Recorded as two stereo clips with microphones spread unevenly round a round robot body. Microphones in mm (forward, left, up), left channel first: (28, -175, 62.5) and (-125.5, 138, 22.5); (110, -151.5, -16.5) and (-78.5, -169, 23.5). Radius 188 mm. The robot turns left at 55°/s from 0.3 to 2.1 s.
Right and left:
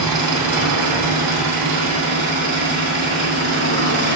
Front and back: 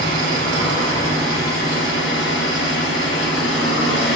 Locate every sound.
0.0 s an engine running: 150° left, 2.5 m; by 4.2 s 50° left, 2.5 m